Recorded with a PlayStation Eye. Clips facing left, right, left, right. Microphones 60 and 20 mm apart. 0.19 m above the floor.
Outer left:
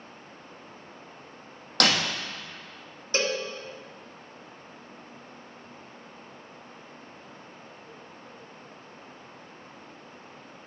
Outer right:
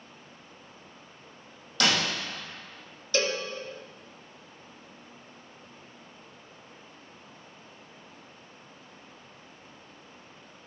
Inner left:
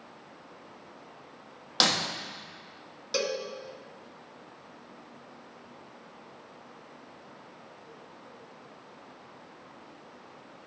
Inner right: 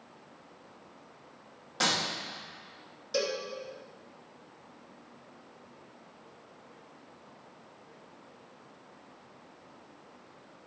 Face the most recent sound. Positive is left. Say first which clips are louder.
# even, inner left 1 dB
turn(degrees=30)  # may be behind; listen again after turning